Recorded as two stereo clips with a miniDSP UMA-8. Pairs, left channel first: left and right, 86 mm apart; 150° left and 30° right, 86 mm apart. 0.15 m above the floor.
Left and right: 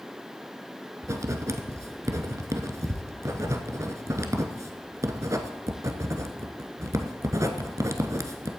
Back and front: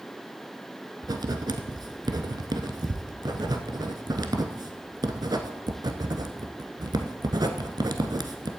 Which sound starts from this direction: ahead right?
Writing, at 1.0 s.